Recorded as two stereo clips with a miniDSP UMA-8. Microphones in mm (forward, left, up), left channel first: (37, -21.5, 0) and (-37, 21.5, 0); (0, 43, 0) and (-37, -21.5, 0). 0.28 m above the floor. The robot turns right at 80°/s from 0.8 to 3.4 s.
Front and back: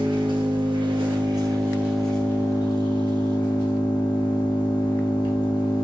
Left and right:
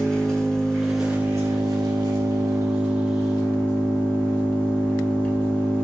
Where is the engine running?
140° left, 1.4 m; by 5.8 s 10° right, 1.4 m.